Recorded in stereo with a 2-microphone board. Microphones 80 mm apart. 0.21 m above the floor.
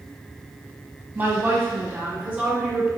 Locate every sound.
1.1 s a woman speaking: 25° right (ahead or behind), 1.0 m; by 2.9 s 15° right (ahead or behind), 1.8 m